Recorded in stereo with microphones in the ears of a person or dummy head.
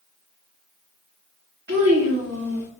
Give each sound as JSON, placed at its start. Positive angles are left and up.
{"t": 1.7, "sound": "a child speaking", "side_deg": -65, "distance_m": 1.3}